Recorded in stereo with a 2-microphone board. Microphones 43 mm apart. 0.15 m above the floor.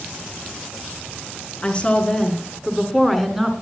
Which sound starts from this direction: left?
A woman speaking, at 1.6 s.